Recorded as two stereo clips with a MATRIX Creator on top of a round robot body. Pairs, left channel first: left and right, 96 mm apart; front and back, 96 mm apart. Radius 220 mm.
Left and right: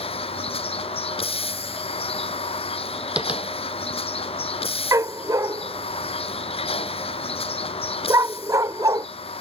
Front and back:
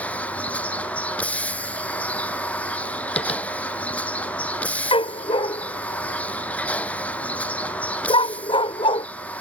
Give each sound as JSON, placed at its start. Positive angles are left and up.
{"t": 0.0, "sound": "a vehicle", "azimuth_deg": 75}
{"t": 3.2, "sound": "tapping", "azimuth_deg": -10}
{"t": 4.9, "sound": "a dog barking", "azimuth_deg": -35}